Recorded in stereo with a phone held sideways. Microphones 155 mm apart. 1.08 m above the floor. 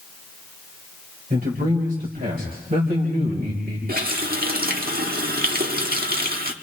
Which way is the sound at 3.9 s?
75° right (ahead or behind).